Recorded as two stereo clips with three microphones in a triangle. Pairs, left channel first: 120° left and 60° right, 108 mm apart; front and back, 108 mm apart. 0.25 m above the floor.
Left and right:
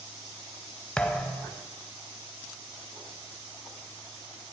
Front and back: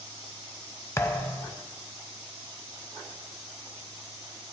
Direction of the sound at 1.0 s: 45° left.